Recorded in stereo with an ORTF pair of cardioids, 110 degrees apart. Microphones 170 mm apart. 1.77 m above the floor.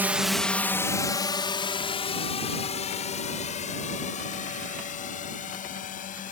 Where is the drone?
10° right; by 6.3 s 50° left.